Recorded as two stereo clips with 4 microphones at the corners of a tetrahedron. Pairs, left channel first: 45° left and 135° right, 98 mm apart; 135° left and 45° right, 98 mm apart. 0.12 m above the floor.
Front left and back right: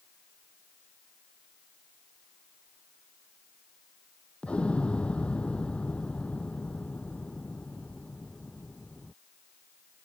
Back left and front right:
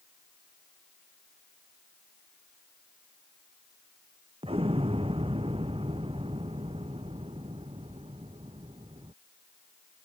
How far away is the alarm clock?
I don't hear an alarm clock.